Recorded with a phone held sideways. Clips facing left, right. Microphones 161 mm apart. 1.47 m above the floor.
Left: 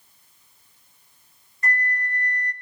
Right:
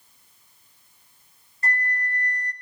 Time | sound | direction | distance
1.6 | a flute | 35° right (ahead or behind) | 1.5 m